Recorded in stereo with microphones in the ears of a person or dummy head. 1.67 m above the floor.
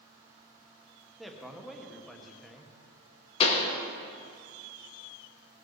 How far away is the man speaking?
About 1.1 m.